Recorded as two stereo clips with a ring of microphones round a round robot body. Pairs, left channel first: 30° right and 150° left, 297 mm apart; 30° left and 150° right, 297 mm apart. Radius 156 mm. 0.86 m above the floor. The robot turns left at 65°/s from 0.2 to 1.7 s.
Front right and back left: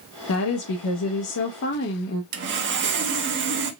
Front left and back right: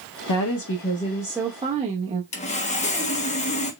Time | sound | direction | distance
0.3 | a woman speaking | 10° left | 1.0 m
2.3 | sawing | 100° left | 1.1 m